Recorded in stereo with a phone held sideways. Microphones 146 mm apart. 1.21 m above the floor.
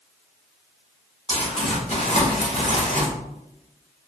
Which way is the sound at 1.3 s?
45° left (ahead or behind).